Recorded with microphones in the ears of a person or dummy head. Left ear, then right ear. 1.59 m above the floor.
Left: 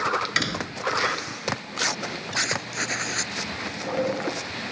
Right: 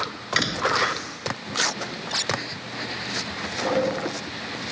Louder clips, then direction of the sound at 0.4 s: Right 5 dB; centre (ahead or behind).